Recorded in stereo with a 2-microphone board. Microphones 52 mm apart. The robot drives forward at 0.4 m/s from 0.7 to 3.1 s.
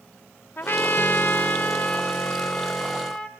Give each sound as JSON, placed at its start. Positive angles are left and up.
{"t": 0.6, "sound": "a trumpet", "side_deg": 40, "distance_m": 0.7}